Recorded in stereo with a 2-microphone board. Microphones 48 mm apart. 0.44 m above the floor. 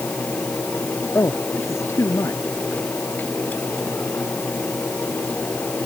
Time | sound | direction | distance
1.1 | a man speaking | 75° left (ahead or behind) | ?